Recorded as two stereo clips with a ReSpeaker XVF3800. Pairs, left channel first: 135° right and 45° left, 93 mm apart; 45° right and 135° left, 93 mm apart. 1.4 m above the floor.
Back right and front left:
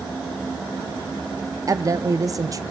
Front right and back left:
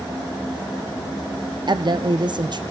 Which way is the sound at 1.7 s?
100° left.